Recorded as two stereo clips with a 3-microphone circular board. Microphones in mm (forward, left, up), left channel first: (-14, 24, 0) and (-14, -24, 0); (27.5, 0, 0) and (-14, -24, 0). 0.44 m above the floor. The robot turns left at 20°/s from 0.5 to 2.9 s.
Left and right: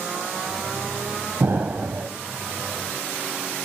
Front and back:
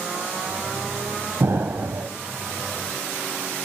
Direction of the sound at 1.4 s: 125° right.